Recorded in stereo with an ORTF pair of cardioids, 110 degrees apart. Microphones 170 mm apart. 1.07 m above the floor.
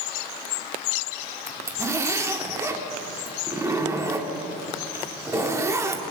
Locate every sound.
1.5 s a zipper: 15° right, 1.2 m